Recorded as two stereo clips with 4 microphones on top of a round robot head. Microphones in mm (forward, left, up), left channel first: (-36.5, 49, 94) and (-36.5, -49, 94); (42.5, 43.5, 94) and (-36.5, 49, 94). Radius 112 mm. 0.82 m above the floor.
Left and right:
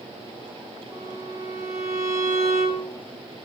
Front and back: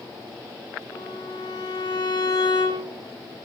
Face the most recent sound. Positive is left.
turn(degrees=-30)